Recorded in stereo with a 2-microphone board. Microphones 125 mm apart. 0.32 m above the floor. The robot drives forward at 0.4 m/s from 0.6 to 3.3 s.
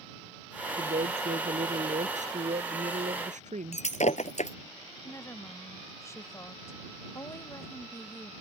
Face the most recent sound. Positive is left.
turn(degrees=25)  # may be behind; listen again after turning